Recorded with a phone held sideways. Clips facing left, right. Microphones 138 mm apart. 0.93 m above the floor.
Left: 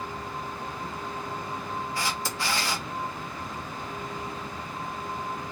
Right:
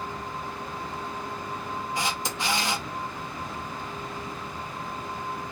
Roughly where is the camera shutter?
Right.